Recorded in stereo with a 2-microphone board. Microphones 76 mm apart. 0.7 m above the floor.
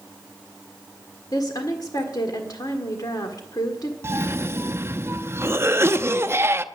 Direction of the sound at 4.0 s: 35° right (ahead or behind).